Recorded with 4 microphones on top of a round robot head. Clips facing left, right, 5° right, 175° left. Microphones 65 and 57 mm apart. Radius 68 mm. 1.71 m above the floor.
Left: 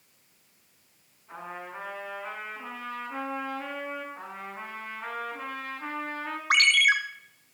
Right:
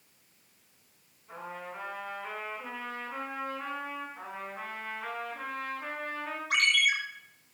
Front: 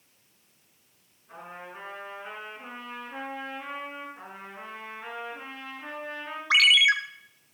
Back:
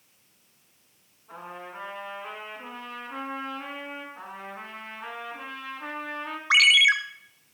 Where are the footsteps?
No footsteps in this recording.